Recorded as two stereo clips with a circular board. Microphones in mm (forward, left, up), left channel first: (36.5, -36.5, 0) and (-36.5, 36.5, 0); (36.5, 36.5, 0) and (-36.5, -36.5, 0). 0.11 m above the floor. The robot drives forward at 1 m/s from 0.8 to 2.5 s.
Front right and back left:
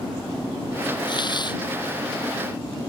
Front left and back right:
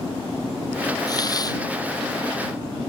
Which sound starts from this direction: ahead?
A hiss, at 1.1 s.